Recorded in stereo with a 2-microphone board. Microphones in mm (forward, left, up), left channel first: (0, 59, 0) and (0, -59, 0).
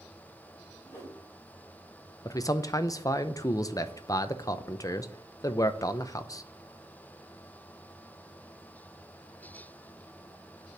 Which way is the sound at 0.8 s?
25° left (ahead or behind).